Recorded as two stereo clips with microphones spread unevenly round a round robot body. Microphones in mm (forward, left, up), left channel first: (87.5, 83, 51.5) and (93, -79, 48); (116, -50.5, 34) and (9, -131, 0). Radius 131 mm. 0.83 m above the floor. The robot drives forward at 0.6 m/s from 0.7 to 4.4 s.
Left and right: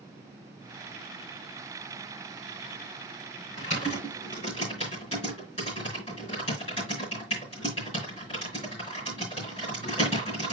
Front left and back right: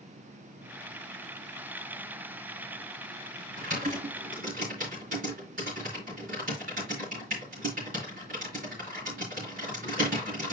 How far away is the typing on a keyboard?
About 4 m.